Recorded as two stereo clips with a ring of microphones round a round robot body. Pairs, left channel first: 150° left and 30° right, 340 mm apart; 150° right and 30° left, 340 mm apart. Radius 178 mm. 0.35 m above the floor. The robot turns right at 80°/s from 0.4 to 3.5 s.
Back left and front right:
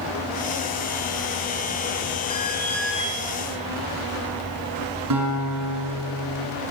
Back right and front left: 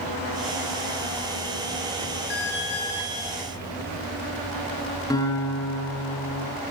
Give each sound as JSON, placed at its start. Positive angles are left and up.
{"t": 2.3, "sound": "an alarm", "azimuth_deg": -135, "distance_m": 9.0}
{"t": 5.1, "sound": "a guitar", "azimuth_deg": -70, "distance_m": 5.5}